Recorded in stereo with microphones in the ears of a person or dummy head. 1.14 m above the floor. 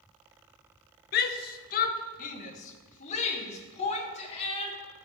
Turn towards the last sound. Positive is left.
turn(degrees=35)  # may be behind; listen again after turning